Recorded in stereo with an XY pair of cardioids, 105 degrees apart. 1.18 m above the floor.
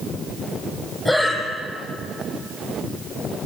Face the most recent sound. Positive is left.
turn(degrees=25)